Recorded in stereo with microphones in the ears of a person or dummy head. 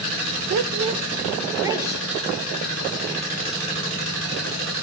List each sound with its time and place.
0.5 s a woman speaking: 50° right (ahead or behind), 0.8 m; by 3.6 s 10° right (ahead or behind), 5 m